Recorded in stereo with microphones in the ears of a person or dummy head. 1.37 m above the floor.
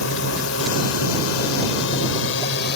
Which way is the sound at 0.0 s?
70° left (ahead or behind).